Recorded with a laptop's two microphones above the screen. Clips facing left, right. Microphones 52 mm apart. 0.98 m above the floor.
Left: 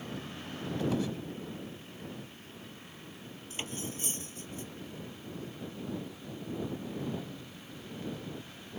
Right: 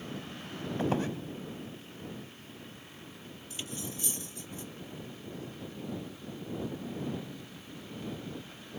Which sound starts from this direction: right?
A squeak, at 0.8 s.